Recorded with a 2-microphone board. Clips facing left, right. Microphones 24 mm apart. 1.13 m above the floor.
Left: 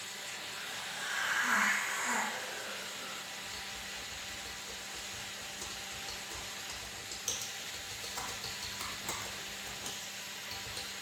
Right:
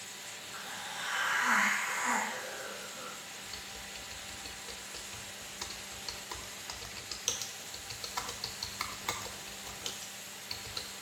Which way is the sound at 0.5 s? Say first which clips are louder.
Right 3 dB; 80° right.